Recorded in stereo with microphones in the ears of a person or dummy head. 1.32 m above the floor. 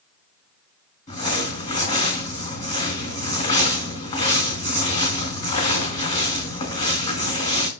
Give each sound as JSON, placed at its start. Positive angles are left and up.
{"t": 1.1, "sound": "crumpling", "side_deg": 40, "distance_m": 3.0}